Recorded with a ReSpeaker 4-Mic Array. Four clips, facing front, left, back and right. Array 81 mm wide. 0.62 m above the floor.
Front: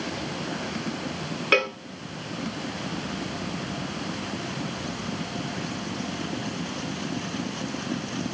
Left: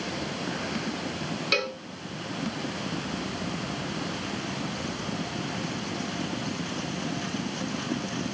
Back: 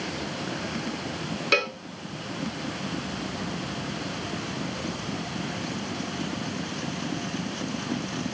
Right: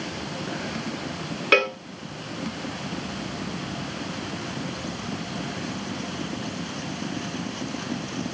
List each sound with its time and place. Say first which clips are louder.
1.5 s a cowbell: right 10 dB, front 3 dB; 75° right, 1.2 m